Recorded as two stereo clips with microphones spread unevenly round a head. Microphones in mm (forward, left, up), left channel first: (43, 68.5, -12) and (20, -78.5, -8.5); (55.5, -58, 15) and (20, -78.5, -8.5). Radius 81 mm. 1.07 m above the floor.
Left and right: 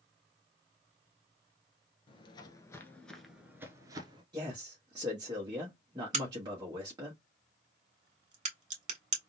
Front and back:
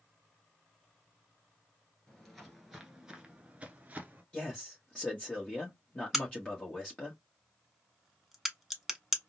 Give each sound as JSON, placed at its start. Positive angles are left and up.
{"t": 2.1, "sound": "footsteps", "azimuth_deg": 55, "distance_m": 1.2}
{"t": 4.3, "sound": "a man speaking", "azimuth_deg": -35, "distance_m": 1.2}
{"t": 6.1, "sound": "a crack", "azimuth_deg": -60, "distance_m": 1.7}